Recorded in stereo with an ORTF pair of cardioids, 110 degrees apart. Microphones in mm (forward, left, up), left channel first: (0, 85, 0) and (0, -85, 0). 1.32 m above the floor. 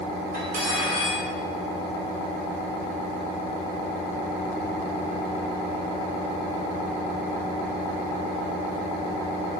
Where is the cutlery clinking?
60° right, 1.5 m.